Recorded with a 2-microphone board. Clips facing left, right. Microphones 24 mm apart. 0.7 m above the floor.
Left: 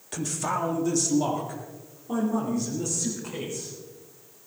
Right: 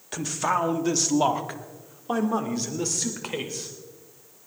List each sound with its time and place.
0.1 s a man speaking: 20° right (ahead or behind), 1.4 m; by 3.7 s 75° right (ahead or behind), 3 m